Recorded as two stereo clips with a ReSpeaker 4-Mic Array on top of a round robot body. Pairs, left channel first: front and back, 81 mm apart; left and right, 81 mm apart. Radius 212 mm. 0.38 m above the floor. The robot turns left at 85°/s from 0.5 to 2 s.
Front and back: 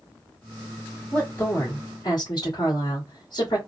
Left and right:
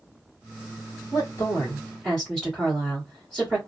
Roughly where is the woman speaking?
Left.